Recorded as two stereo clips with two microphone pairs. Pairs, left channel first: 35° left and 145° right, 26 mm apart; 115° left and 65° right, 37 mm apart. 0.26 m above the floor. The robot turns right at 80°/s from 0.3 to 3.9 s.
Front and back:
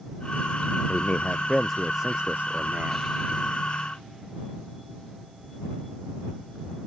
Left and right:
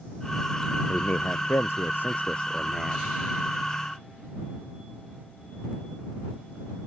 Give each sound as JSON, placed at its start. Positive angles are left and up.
{"t": 0.9, "sound": "a man speaking", "azimuth_deg": 55}